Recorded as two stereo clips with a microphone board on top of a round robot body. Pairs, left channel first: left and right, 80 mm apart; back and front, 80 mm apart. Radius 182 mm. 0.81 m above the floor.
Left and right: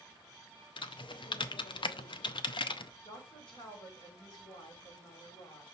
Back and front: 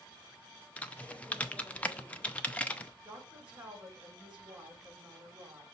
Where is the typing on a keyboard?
105° left, 0.6 m.